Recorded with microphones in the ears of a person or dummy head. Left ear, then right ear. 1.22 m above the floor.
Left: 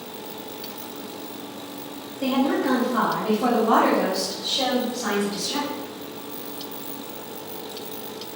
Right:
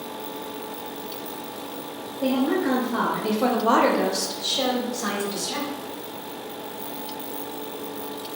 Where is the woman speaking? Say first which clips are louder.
Left 1 dB; 5° left (ahead or behind), 0.7 m; by 5.7 s 65° right (ahead or behind), 1.5 m.